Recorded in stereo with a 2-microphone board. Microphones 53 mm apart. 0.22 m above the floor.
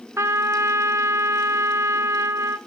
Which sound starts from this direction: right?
A trumpet, at 0.2 s.